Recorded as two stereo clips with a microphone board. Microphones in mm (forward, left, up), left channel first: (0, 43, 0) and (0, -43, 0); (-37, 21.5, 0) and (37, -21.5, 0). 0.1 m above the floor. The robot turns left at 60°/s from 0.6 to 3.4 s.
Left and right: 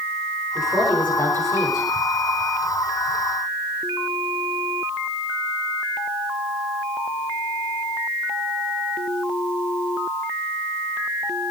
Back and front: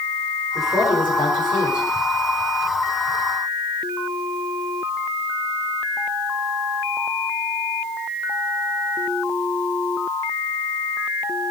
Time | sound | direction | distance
0.6 | a woman speaking | 170° right | 9 m